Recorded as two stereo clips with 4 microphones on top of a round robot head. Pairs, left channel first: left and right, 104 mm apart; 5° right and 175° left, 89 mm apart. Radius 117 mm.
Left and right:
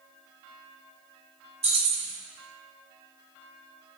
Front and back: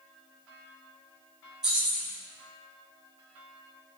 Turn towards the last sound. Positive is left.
turn(degrees=-105)